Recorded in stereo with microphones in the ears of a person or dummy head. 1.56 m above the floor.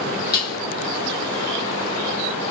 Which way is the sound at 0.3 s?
20° left (ahead or behind).